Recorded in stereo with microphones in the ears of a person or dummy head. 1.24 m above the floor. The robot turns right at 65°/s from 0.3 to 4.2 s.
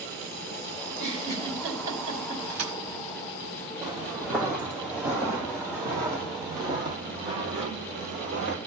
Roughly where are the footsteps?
Right.